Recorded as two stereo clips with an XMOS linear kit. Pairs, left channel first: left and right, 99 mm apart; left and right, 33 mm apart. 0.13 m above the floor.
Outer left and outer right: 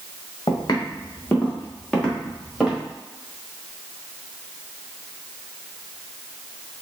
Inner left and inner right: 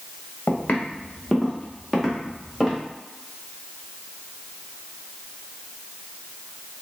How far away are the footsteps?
About 1.4 m.